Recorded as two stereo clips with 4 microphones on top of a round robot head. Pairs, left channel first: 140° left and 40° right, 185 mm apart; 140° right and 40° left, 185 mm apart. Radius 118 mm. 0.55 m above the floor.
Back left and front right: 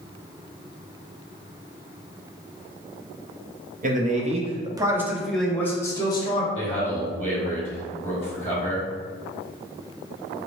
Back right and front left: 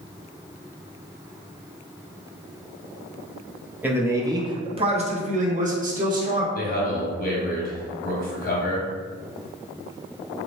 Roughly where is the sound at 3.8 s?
Ahead right.